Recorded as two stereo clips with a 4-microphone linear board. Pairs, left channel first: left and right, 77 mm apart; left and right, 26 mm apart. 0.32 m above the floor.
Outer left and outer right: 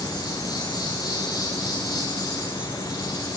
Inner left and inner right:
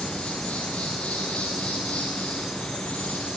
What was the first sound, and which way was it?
An insect, 60° left (ahead or behind).